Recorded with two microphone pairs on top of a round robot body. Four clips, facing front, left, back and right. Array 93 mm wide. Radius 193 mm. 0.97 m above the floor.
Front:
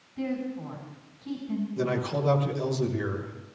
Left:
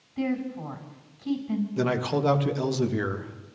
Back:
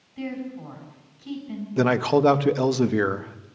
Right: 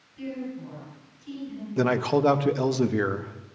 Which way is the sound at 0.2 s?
100° left.